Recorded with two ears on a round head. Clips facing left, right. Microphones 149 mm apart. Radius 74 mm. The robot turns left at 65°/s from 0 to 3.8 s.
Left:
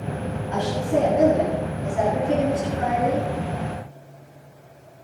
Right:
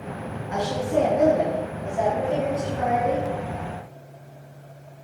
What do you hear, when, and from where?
0.5 s a woman speaking: 170° right, 9.5 m; by 3.3 s 10° left, 9.5 m